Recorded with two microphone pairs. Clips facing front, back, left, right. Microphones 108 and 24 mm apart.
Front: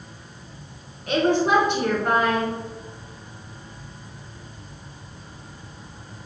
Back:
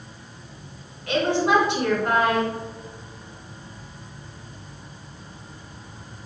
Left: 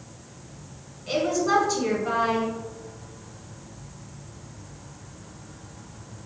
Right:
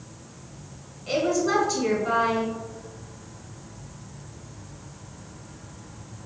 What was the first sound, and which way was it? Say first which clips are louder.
A woman speaking: front 1 dB, even; 10° right.